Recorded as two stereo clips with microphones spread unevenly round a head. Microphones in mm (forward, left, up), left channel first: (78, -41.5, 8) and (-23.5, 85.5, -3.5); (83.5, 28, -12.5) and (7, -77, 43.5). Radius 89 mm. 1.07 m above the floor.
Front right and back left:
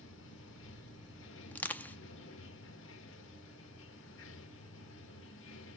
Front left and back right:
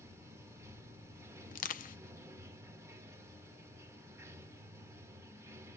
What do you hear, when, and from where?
0.0 s running water: 55° right, 1.1 m
1.5 s crushing: 25° left, 0.6 m